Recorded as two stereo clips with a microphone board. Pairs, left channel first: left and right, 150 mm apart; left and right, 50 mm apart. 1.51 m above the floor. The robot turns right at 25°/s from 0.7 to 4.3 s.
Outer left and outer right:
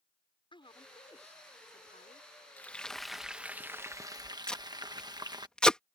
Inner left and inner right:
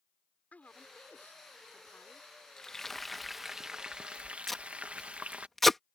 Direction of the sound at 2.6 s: 170° left.